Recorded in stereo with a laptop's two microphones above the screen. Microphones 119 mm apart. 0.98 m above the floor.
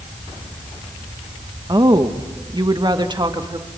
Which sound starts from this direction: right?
A woman speaking, at 1.7 s.